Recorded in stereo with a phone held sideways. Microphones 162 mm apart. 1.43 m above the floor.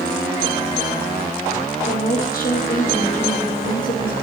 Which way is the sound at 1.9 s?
65° left (ahead or behind).